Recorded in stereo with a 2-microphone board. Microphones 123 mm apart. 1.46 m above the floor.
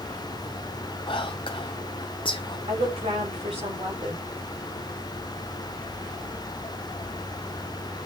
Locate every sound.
1.1 s whispering: 40° left (ahead or behind), 0.5 m
2.7 s a woman speaking: 55° right (ahead or behind), 4 m